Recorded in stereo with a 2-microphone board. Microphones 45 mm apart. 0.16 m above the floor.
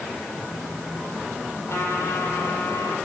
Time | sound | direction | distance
1.7 | a trumpet | 75° left (ahead or behind) | 6 m